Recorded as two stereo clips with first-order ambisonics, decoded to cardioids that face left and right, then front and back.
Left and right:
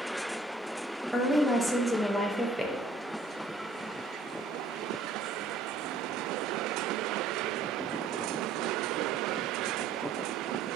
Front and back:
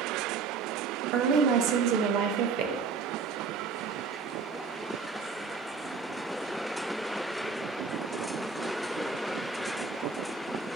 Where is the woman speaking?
175° right, 0.5 m.